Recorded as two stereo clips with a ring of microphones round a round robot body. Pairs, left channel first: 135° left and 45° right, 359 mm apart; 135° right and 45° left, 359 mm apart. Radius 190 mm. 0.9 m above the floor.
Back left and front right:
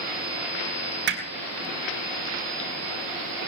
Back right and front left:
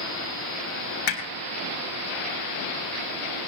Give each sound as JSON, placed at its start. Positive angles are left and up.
{"t": 1.1, "sound": "hammering", "azimuth_deg": -105, "distance_m": 3.5}